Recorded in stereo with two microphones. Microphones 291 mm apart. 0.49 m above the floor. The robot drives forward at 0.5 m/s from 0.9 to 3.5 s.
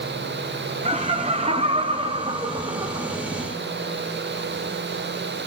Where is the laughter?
20° right (ahead or behind), 0.9 m; by 3.2 s 15° right (ahead or behind), 1.4 m.